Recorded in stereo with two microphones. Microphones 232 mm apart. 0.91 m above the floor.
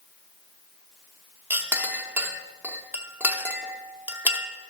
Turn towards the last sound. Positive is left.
turn(degrees=-5)  # may be behind; listen again after turning